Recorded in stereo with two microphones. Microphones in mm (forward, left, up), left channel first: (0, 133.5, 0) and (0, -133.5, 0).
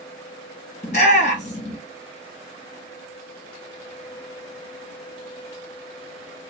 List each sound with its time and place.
0.8 s a shout: 30° left (ahead or behind), 1.7 m